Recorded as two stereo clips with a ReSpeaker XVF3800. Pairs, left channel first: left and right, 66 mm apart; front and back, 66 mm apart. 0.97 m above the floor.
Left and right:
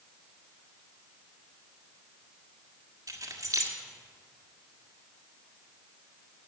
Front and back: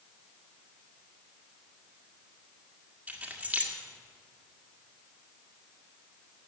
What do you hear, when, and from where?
3.1 s keys jangling: 110° right, 1.8 m